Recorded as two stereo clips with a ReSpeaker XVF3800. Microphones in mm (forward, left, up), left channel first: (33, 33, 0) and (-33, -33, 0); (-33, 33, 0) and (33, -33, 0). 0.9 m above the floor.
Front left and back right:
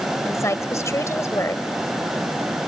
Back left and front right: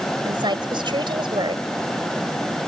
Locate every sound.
0.2 s a woman speaking: 15° right